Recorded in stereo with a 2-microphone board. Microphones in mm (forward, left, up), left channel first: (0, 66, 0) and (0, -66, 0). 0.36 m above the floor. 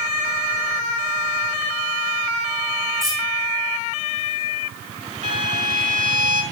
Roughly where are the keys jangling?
Right.